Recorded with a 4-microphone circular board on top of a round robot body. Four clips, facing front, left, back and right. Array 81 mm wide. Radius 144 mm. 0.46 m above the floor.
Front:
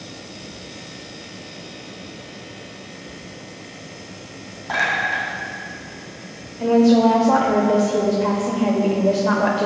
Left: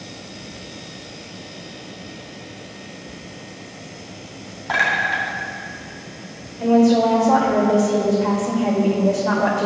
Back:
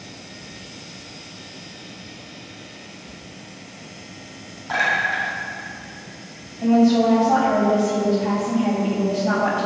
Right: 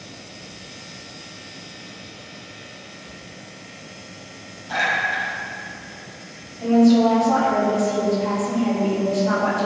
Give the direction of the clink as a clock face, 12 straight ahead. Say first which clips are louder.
Left 3 dB, even; 9 o'clock.